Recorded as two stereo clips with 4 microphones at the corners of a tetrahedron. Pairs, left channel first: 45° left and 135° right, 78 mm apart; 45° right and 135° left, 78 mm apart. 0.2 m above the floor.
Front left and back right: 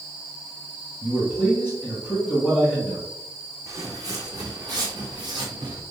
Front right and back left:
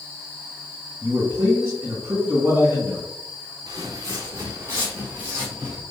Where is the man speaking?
165° left, 1.9 m.